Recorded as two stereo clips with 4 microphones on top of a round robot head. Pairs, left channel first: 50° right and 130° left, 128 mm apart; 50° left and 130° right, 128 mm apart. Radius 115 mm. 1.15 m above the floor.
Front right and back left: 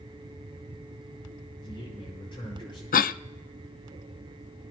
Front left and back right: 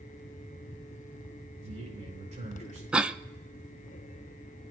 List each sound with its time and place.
1.6 s a man speaking: 100° right, 9 m
2.9 s a cough: 50° right, 0.5 m